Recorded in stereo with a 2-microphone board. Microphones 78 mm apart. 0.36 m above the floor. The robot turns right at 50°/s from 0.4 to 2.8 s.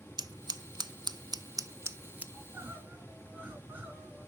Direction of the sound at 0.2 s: 65° right (ahead or behind).